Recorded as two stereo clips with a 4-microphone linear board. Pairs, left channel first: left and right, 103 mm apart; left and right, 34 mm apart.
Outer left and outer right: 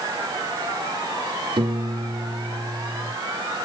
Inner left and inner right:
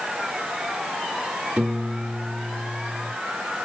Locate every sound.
1.6 s a piano: 50° right (ahead or behind), 1.0 m